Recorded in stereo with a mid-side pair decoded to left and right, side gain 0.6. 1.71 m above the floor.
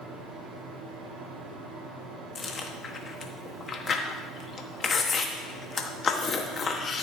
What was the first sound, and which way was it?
A fan, 55° right.